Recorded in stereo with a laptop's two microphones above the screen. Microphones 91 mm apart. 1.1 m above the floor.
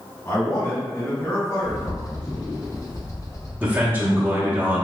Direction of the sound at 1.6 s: 35° left (ahead or behind).